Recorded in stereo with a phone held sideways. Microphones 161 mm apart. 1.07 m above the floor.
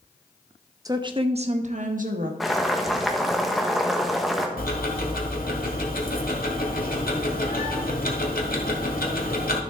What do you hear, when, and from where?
0.8 s a woman speaking: 20° right (ahead or behind), 0.9 m; by 2.3 s 60° right (ahead or behind), 1.5 m
2.4 s boiling: centre (ahead or behind), 1.1 m
4.6 s ticking: 65° left (ahead or behind), 1.4 m